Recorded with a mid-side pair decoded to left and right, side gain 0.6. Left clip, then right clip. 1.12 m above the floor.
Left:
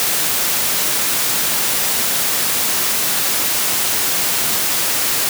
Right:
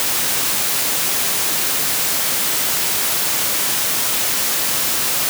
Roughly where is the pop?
I don't hear a pop.